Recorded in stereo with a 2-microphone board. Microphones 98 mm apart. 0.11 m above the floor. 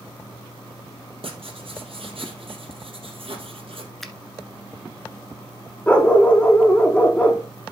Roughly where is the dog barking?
Centre.